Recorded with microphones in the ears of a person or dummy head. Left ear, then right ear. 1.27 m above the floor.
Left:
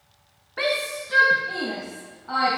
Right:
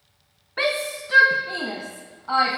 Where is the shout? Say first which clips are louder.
Right 1 dB; 20° right (ahead or behind), 0.7 m; by 2.6 s 35° right (ahead or behind), 1.7 m.